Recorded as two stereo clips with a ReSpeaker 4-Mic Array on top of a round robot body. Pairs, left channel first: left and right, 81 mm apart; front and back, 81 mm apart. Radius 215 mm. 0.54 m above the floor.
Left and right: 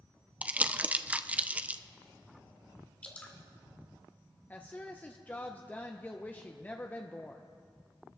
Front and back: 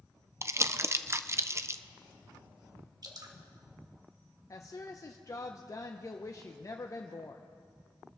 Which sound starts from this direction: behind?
Dripping, at 3.0 s.